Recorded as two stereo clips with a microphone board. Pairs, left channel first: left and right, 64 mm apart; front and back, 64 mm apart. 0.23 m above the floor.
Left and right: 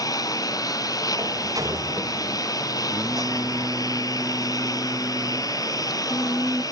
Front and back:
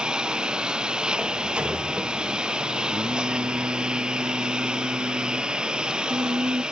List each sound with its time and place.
0.0 s a lawn mower: 105° left
1.2 s a sliding door: 105° right
2.9 s singing: 150° right